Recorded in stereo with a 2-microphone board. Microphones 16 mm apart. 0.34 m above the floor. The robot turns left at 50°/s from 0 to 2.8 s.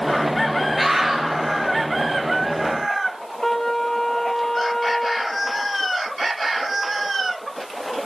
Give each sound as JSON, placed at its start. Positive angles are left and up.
{"t": 0.8, "sound": "a scream", "side_deg": -10, "distance_m": 6.5}
{"t": 3.4, "sound": "a trumpet", "side_deg": 20, "distance_m": 2.0}